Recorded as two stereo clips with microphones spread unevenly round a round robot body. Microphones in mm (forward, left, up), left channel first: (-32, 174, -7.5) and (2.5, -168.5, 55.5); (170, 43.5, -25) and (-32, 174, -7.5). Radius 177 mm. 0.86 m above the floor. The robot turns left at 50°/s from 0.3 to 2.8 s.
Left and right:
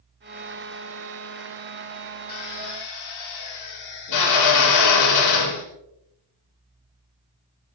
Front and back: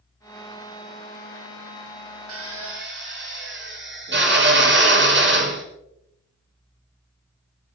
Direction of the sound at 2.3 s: 135° left.